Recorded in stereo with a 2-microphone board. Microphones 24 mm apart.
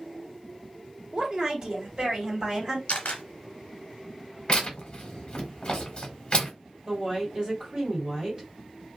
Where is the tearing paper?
40° left (ahead or behind), 1.0 m.